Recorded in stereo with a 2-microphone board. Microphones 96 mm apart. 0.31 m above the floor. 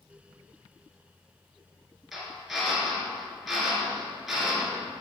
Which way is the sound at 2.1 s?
5° right (ahead or behind).